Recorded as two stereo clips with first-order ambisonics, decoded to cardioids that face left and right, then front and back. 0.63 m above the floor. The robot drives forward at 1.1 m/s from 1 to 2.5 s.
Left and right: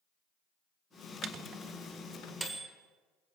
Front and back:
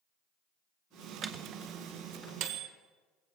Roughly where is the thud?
No thud in this recording.